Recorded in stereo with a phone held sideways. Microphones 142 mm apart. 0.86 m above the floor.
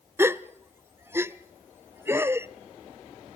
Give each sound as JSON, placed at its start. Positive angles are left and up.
{"t": 0.2, "sound": "a gasp", "side_deg": -15, "distance_m": 0.5}